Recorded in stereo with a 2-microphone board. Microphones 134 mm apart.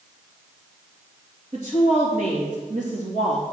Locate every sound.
1.5 s a woman speaking: 70° right (ahead or behind), 3 m